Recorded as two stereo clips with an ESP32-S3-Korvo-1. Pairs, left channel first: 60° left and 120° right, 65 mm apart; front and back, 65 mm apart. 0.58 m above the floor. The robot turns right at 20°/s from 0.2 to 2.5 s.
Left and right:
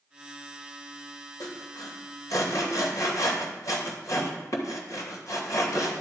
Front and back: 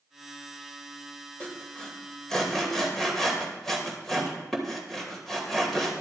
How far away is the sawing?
About 2.5 m.